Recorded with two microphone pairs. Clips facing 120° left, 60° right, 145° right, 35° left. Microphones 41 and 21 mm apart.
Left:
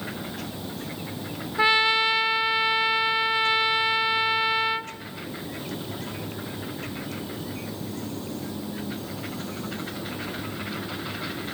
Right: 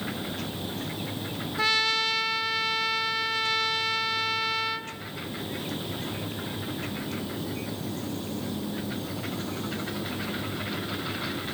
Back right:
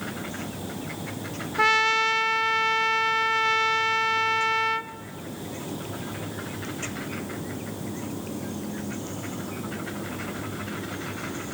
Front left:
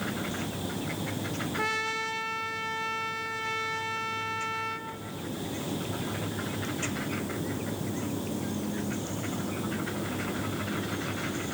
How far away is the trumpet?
About 0.8 m.